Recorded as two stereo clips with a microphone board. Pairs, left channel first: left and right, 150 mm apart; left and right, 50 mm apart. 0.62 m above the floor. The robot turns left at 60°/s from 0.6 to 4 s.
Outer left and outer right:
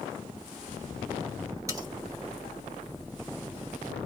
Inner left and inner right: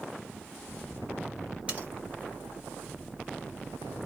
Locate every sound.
1.7 s cutlery clinking: 20° right (ahead or behind), 1.0 m; by 1.9 s 30° right (ahead or behind), 1.0 m